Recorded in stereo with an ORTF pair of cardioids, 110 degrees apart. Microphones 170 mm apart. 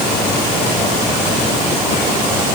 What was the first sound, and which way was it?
Only background noise.